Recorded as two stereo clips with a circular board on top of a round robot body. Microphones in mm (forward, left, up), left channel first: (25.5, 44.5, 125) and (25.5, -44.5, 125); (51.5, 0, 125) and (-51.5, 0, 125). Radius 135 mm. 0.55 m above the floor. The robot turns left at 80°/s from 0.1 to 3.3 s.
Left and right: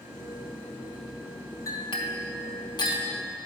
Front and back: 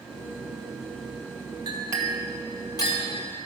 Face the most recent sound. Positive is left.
turn(degrees=15)